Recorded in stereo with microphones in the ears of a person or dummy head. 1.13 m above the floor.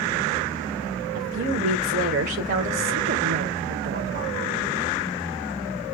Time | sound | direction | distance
1.1 | a woman speaking | 50° right (ahead or behind) | 0.8 m